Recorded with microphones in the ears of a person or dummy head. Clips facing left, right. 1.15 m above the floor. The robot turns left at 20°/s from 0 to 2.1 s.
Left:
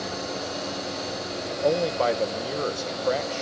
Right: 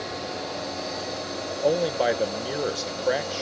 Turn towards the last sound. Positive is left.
turn(degrees=-15)  # may be behind; listen again after turning